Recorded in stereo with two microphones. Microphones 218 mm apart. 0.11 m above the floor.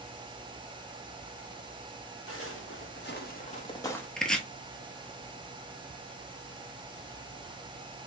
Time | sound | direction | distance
2.3 | footsteps | 75° left (ahead or behind) | 1.4 m
4.2 | chopping | 5° left (ahead or behind) | 0.7 m